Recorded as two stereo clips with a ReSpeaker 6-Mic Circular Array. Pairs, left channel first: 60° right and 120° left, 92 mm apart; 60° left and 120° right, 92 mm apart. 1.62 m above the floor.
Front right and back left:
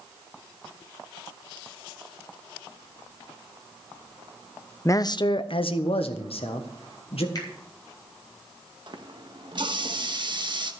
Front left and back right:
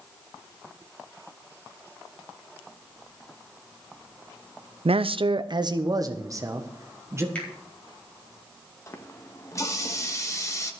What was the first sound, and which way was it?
A man speaking, 120° right.